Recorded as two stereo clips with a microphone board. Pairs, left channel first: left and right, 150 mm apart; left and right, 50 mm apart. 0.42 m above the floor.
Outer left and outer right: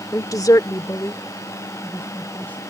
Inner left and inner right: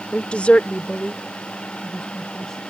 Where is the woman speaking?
20° left (ahead or behind); by 2.6 s 10° left (ahead or behind).